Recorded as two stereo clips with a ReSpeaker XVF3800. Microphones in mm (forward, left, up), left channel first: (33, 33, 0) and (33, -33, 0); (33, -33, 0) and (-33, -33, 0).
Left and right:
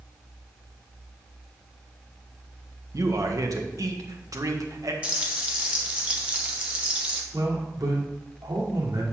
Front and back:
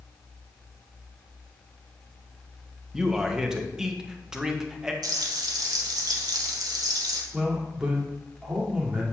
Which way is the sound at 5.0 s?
160° right.